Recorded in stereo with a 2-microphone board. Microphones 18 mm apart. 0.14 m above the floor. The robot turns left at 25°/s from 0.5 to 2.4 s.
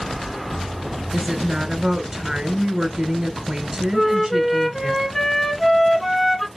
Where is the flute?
15° left (ahead or behind), 0.9 m.